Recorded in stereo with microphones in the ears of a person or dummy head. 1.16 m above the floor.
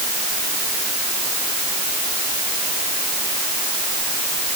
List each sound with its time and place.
Only background noise.